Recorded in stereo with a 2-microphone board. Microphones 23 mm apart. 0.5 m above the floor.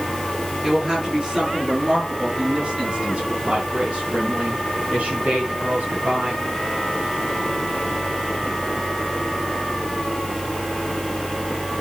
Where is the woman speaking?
30° right (ahead or behind), 7 m; by 6.5 s 80° right, 5.5 m.